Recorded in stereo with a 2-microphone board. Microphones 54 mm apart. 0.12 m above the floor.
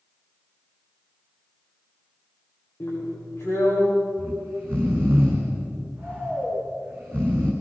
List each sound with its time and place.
2.8 s a drill: 45° left (ahead or behind), 9 m
4.2 s snoring: 45° right (ahead or behind), 6.5 m